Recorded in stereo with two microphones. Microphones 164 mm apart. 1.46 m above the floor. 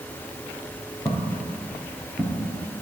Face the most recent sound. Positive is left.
turn(degrees=10)  # may be behind; listen again after turning